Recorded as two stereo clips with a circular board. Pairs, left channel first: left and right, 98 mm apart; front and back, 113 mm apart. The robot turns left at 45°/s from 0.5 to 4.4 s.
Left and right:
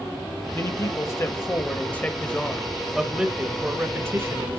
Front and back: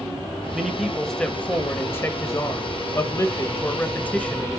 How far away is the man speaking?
About 0.9 m.